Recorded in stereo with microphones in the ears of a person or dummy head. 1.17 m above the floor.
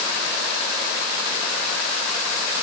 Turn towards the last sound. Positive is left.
No sound to turn to.